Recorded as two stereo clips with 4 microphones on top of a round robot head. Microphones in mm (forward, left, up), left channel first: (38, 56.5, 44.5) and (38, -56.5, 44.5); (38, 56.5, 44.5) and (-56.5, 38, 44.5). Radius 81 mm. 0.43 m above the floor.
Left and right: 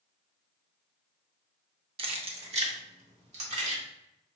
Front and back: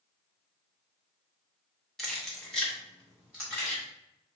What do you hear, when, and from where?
2.0 s keys jangling: 75° right, 0.7 m